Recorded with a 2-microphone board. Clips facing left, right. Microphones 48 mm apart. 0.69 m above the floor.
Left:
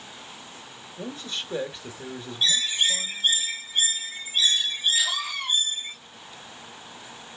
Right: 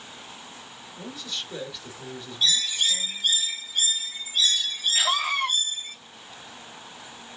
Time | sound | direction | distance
1.0 | a man speaking | 35° left (ahead or behind) | 2.5 m
2.4 | a bird | 30° left (ahead or behind) | 1.4 m
5.0 | a scream | 55° right (ahead or behind) | 1.1 m